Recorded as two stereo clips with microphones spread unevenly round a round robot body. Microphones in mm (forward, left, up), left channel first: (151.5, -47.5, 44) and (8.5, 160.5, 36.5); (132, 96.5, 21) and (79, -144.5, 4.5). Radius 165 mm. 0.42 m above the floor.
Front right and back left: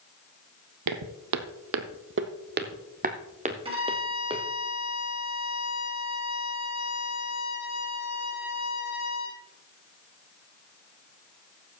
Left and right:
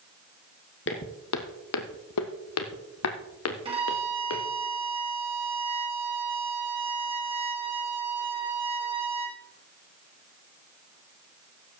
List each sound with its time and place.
0.9 s footsteps: 130° left, 1.0 m; by 4.5 s 50° left, 2 m
3.6 s a violin: 170° right, 2.5 m